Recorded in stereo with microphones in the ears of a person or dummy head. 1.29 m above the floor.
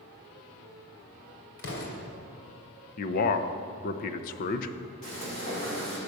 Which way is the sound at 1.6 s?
70° left (ahead or behind).